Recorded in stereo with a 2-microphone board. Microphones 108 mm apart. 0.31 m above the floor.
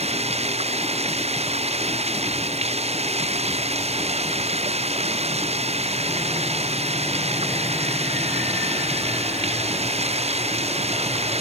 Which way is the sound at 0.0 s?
75° right (ahead or behind).